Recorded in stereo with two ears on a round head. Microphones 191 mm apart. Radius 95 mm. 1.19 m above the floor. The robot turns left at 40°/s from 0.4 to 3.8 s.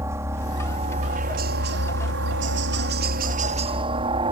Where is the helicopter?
15° right; by 4.3 s 150° right.